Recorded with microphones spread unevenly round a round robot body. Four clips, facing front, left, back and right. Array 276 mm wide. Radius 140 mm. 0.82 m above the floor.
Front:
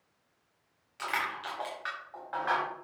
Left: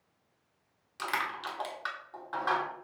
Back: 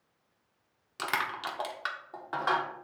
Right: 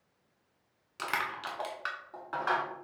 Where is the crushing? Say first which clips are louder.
Left 1 dB, back 1 dB; 170° right, 1.3 m.